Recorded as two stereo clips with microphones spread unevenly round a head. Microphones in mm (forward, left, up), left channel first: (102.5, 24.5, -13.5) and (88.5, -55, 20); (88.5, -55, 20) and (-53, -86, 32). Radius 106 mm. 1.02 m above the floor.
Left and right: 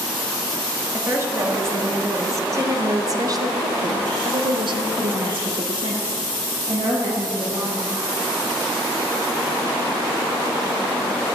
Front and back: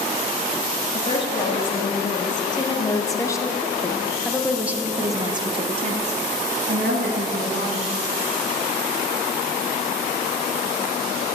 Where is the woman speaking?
35° right, 2.5 m; by 8.0 s 175° right, 1.9 m.